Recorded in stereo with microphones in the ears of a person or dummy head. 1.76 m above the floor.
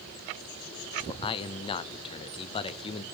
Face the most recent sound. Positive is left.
turn(degrees=30)  # may be behind; listen again after turning